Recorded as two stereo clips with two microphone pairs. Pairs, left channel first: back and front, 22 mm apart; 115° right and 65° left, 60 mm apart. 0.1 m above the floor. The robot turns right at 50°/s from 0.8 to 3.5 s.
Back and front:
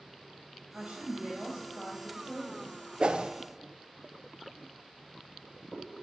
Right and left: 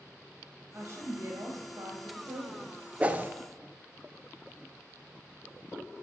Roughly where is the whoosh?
Ahead.